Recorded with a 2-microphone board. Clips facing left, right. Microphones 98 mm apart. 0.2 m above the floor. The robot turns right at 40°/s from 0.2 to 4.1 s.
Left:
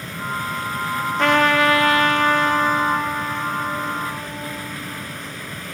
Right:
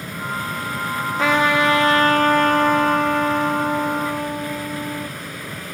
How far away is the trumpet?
About 3 m.